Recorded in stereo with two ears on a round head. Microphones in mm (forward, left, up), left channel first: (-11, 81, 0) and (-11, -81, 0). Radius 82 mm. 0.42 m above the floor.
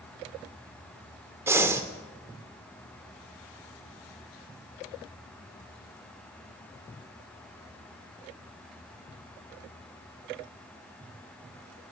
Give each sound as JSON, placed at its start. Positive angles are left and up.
{"t": 1.5, "sound": "breathing", "side_deg": -15, "distance_m": 0.8}